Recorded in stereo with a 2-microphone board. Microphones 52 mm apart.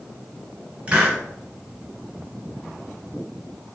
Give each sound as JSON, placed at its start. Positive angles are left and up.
{"t": 0.9, "sound": "a hiss", "side_deg": -20, "distance_m": 1.4}